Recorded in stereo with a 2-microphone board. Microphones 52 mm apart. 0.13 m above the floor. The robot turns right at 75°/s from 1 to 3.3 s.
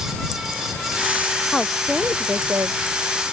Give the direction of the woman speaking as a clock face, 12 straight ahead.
7 o'clock.